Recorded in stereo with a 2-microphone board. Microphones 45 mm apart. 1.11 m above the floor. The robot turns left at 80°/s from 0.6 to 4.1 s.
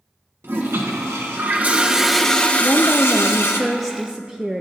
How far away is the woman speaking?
About 0.5 m.